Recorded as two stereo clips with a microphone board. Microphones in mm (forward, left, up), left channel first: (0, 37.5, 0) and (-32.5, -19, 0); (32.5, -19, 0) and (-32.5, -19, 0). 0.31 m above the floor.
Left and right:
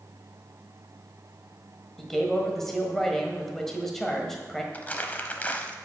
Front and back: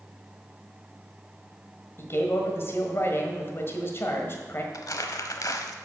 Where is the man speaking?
25° right, 1.4 m.